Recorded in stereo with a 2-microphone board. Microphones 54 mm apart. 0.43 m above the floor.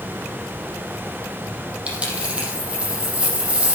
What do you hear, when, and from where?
1.9 s a dropped coin: 20° right (ahead or behind), 5 m